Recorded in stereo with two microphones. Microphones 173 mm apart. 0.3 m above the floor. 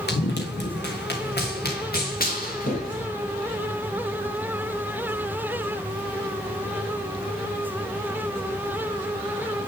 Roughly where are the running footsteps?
Left.